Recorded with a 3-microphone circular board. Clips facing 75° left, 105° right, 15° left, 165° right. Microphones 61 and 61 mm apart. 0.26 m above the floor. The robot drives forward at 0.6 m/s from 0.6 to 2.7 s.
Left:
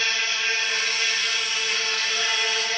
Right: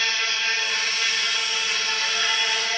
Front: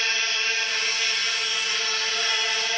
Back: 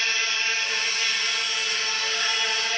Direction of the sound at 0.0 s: 130° left.